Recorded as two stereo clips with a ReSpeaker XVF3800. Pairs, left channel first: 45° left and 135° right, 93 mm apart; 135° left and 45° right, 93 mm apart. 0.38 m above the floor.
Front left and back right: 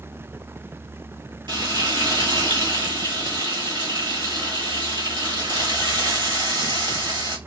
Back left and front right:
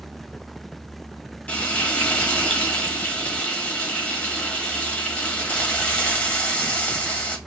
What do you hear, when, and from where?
1.5 s frying: 155° right, 1.0 m